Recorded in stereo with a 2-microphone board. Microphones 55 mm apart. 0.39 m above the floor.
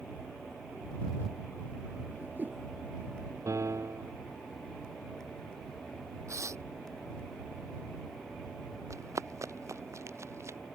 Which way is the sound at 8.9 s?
70° right (ahead or behind).